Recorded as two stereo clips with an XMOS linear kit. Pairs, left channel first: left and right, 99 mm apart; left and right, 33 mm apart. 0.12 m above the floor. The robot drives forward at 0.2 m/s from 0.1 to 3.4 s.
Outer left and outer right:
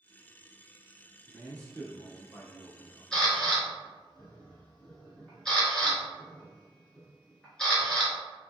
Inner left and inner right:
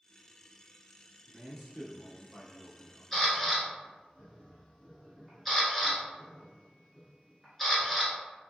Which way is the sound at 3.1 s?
5° left (ahead or behind).